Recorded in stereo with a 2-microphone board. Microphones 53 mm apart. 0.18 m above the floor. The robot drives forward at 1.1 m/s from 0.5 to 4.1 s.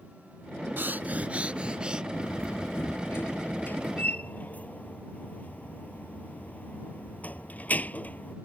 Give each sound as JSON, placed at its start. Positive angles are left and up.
{"t": 0.8, "sound": "breathing", "side_deg": -40}
{"t": 2.1, "sound": "a door slam", "side_deg": 65}